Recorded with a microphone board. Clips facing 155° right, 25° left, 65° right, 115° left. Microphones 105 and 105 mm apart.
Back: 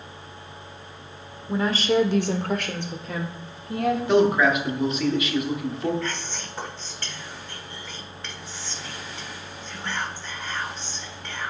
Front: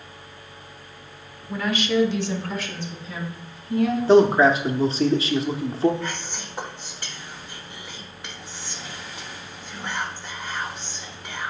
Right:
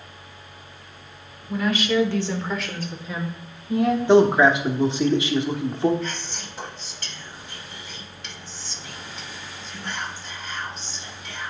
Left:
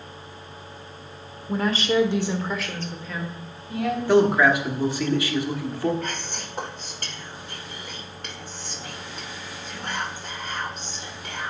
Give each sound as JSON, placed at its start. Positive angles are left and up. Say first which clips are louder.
{"t": 1.5, "sound": "a woman speaking", "louder": "back 2 dB, even", "azimuth_deg": 145, "distance_m": 1.1}
{"t": 4.1, "sound": "a man speaking", "louder": "front 5 dB, right 2 dB", "azimuth_deg": -15, "distance_m": 0.9}
{"t": 6.0, "sound": "whispering", "louder": "even, even", "azimuth_deg": 95, "distance_m": 1.2}